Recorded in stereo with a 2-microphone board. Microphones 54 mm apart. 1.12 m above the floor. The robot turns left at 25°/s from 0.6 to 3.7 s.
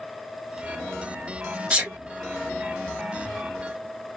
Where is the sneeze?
20° right (ahead or behind), 1.1 m; by 2.0 s 25° right (ahead or behind), 1.1 m.